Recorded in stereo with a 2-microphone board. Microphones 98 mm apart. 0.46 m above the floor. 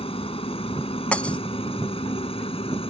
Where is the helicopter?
75° left (ahead or behind); by 2.9 s 70° left (ahead or behind).